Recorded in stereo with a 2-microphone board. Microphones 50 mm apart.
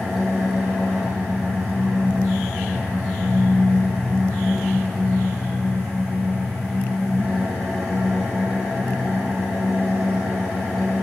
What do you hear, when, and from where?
0.0 s an engine running: centre (ahead or behind), 9.5 m